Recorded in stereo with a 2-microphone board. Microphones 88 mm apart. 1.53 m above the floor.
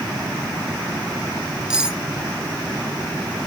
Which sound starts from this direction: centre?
Cutlery clinking, at 1.7 s.